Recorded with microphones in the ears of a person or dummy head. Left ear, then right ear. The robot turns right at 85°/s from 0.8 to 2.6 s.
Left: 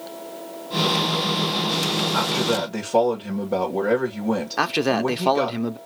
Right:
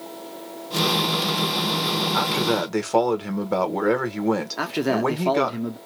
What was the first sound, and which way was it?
A man speaking, 165° right.